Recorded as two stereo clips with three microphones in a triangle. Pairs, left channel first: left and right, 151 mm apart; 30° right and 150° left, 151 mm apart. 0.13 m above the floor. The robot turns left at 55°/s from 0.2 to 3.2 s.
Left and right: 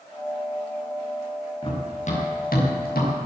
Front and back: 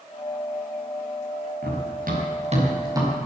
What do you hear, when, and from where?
1.6 s running footsteps: 150° left, 6 m; by 3.3 s 70° left, 6 m